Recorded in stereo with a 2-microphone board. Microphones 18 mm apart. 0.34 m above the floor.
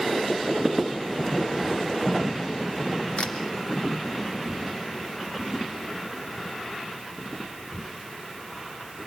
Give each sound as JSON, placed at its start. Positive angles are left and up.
{"t": 3.2, "sound": "a camera shutter", "side_deg": 60, "distance_m": 2.5}